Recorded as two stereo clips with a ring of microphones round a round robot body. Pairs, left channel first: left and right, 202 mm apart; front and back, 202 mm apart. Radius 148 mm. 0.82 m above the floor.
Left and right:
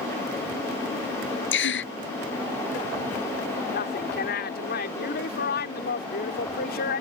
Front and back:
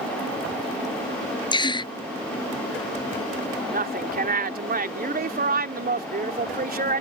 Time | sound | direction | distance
1.5 | a gasp | 65° left | ?
3.7 | a woman speaking | 140° left | ?